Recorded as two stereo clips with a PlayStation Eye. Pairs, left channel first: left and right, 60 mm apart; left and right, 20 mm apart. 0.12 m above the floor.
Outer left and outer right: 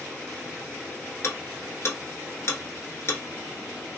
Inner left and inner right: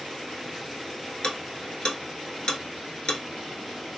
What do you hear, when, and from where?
1.2 s ticking: 50° left (ahead or behind), 0.8 m